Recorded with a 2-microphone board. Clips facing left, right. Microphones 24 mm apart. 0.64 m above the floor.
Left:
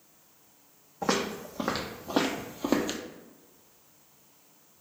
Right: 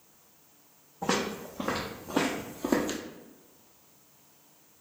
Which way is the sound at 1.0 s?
55° left (ahead or behind).